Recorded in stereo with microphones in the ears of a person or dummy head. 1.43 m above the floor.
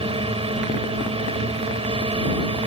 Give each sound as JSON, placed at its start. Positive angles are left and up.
{"t": 0.0, "sound": "a drone", "side_deg": -25}